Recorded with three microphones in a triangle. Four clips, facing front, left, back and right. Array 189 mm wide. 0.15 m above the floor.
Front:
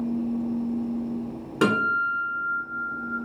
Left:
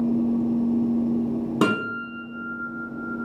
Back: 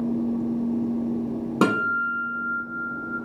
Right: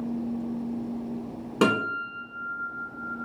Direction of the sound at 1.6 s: 170° left.